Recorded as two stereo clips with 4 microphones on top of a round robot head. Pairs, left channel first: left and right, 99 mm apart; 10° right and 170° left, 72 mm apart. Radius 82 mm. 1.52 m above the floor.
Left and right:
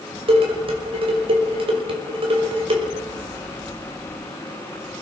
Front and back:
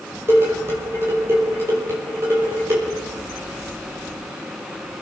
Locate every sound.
0.3 s dishes clattering: 120° right, 5.5 m